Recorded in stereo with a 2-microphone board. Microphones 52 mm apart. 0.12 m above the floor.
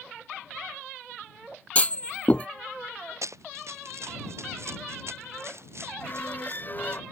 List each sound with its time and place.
1.8 s a clunk: 30° left (ahead or behind)
3.2 s running footsteps: 75° right (ahead or behind); by 7.0 s 60° right (ahead or behind)
6.0 s a squeak: 40° left (ahead or behind)